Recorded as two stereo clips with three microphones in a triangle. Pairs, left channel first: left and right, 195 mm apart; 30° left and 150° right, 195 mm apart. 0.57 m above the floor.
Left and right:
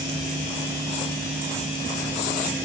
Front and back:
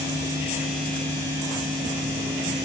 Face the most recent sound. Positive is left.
No sound to turn to.